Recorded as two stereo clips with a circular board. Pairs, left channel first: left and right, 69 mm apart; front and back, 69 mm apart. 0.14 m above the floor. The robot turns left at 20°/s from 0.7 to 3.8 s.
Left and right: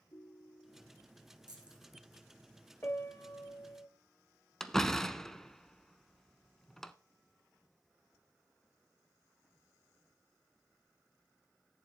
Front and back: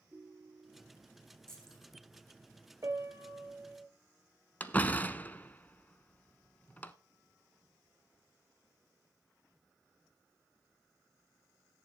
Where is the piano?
145° left, 1.0 m; by 3.9 s 125° left, 1.0 m.